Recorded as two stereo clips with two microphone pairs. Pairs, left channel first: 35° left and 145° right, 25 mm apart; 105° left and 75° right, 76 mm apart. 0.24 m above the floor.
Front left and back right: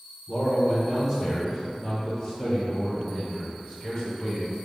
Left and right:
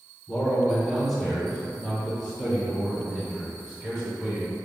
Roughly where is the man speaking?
Behind.